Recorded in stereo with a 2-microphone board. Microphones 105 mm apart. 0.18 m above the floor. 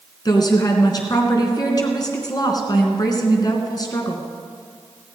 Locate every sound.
0.2 s a woman speaking: 40° left (ahead or behind), 2.5 m